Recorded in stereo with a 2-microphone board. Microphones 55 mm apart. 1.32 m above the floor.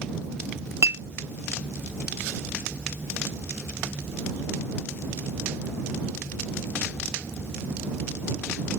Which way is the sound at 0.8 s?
70° right (ahead or behind).